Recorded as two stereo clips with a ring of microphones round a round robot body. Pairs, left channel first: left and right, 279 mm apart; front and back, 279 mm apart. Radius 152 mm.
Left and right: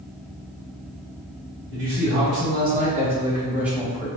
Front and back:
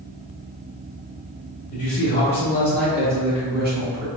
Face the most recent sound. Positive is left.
turn(degrees=175)